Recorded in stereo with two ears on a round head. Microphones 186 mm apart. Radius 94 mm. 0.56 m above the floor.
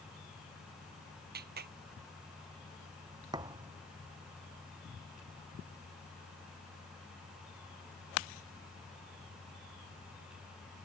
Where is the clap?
50° right (ahead or behind).